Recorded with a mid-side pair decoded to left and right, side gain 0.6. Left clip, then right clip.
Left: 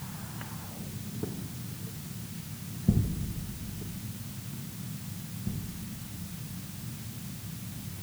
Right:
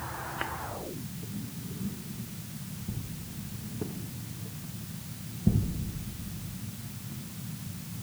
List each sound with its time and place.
Only background noise.